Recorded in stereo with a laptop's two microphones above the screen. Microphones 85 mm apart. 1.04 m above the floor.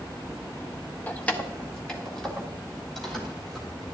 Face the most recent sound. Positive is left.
turn(degrees=0)  # may be behind; listen again after turning